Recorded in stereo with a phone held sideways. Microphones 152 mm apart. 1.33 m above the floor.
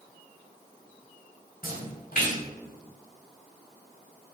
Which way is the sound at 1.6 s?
70° left (ahead or behind).